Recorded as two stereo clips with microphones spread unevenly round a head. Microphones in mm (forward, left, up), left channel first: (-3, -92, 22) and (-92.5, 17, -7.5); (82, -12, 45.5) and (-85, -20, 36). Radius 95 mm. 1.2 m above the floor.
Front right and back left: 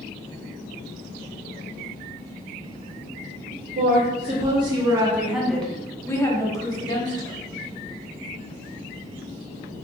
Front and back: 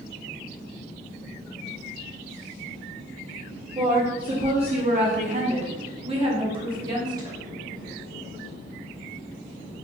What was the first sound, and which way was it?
A woman speaking, 125° left.